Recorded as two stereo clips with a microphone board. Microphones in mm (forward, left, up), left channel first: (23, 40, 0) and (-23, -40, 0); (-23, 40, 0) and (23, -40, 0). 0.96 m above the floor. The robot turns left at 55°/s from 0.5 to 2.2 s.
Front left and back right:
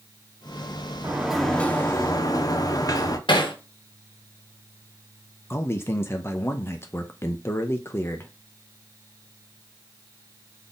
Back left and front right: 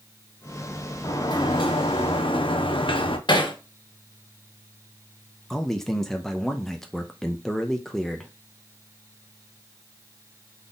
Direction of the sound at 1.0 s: 170° left.